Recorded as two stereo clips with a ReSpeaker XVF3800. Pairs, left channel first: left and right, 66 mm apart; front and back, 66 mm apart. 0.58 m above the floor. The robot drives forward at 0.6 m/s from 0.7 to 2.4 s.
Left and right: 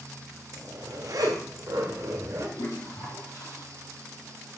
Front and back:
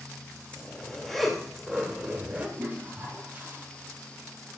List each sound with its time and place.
0.5 s a zipper: 75° right, 1.6 m; by 2.5 s 115° right, 1.6 m
2.6 s a toilet flushing: 115° left, 4 m